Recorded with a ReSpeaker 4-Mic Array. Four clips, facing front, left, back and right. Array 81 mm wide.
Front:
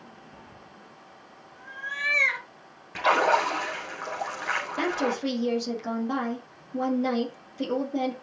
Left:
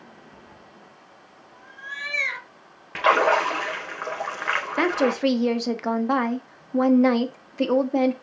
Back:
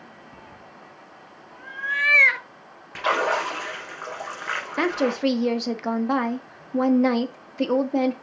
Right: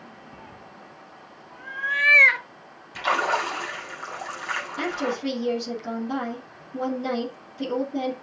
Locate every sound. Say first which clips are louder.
0.3 s a cat meowing: right 4 dB, back 3 dB; 130° right, 1.0 m
3.0 s a splash: left 5 dB, front 1 dB; 90° left, 3.5 m
4.8 s a woman speaking: left 7 dB, back 6 dB; 125° left, 1.7 m